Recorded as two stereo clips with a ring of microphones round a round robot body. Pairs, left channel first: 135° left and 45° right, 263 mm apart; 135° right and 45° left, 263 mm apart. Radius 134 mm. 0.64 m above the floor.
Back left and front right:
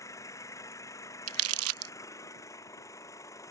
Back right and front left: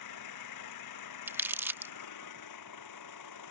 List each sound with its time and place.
0.0 s an engine running: 145° right
1.3 s crumpling: 35° right